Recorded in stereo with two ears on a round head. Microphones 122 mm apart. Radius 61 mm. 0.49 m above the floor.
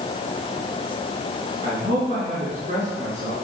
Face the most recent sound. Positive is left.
turn(degrees=-50)  # may be behind; listen again after turning